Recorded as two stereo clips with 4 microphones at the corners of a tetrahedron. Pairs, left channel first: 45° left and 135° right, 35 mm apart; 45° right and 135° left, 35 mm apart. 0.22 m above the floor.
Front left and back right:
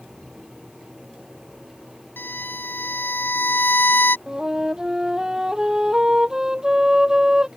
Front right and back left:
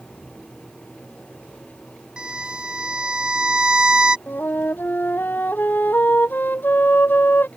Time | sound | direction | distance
2.2 | a violin | 70° left | ?
4.3 | a flute | 65° right | ?